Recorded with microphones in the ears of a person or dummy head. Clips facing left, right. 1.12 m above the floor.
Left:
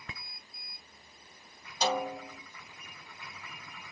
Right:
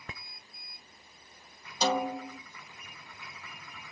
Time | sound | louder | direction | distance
1.8 | a snare drum | right 2 dB | 85° right | 0.7 m